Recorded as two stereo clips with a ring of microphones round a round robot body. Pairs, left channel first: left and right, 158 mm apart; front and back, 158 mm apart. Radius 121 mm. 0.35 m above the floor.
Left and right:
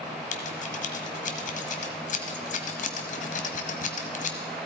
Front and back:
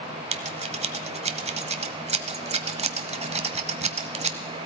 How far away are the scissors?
About 1.3 m.